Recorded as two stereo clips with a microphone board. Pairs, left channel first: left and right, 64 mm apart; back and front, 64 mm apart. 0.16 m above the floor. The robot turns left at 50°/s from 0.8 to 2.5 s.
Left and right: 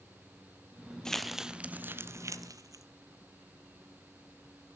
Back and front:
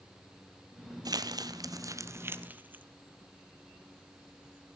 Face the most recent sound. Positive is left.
turn(degrees=-65)